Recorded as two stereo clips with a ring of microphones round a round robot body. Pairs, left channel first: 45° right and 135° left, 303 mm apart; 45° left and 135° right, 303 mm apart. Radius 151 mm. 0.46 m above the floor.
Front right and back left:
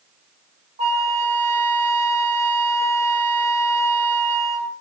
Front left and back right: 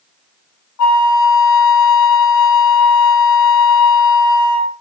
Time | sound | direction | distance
0.8 | a flute | 70° left | 1.4 m